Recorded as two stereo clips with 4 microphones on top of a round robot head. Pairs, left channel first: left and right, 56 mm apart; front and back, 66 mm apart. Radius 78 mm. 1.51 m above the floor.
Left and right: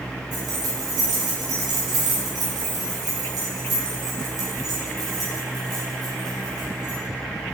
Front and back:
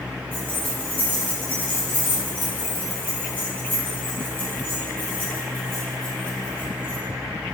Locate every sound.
0.3 s keys jangling: 75° right, 0.9 m